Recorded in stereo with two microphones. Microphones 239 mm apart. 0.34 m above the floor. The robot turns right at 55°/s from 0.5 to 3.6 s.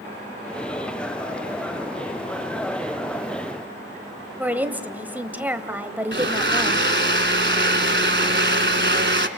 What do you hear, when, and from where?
4.4 s a woman speaking: 5° right (ahead or behind), 1.2 m
6.1 s a blender: 50° right (ahead or behind), 1.2 m